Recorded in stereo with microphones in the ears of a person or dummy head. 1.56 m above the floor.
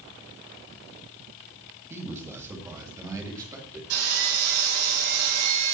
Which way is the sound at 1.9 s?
10° right (ahead or behind).